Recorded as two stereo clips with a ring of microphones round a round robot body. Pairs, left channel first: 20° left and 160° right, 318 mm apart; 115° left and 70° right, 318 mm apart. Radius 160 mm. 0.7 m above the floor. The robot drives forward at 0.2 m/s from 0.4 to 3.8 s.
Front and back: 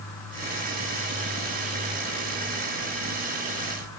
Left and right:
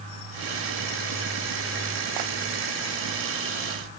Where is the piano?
I don't hear a piano.